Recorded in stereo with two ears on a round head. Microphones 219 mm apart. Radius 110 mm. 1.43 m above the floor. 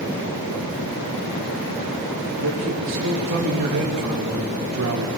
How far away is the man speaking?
About 3.5 m.